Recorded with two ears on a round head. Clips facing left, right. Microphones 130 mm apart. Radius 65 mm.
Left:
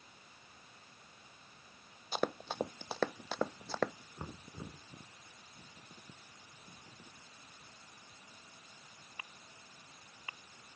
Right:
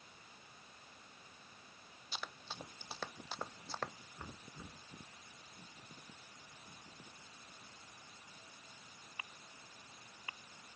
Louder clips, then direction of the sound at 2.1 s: Left 14 dB; 40° left (ahead or behind).